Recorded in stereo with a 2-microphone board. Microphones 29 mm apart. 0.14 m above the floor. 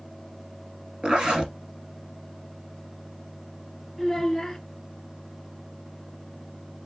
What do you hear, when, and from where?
1.0 s a zipper: 35° right (ahead or behind), 2.0 m
4.0 s a child speaking: 5° left (ahead or behind), 2 m